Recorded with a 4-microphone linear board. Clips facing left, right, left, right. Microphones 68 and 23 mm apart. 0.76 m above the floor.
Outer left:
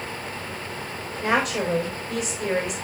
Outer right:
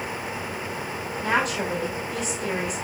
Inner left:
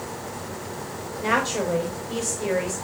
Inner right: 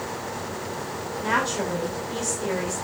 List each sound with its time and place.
1.2 s a woman speaking: 70° left (ahead or behind), 4.5 m